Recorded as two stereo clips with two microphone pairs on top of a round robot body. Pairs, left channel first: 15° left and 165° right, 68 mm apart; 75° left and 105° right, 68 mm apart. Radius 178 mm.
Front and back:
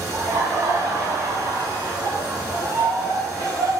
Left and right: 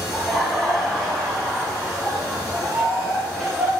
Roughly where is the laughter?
Behind.